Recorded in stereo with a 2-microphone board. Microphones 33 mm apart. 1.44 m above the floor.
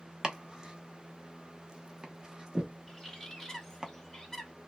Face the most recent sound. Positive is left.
turn(degrees=15)  # may be behind; listen again after turning